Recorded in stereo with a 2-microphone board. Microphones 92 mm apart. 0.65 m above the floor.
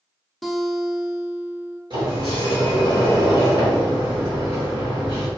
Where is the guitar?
Centre (ahead or behind), 0.5 m.